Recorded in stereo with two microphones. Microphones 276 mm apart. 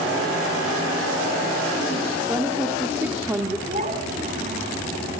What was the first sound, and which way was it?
A woman speaking, 10° right (ahead or behind).